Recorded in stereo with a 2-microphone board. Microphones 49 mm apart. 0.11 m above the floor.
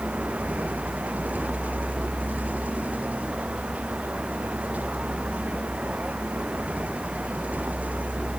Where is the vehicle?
30° right (ahead or behind).